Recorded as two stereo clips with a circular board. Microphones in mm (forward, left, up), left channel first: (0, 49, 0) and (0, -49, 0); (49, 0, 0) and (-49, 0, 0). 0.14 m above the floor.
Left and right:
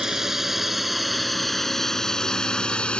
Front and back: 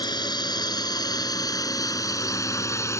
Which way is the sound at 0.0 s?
5° right.